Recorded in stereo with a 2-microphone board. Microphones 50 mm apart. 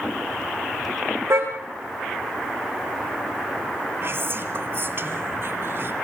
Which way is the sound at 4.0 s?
50° right (ahead or behind).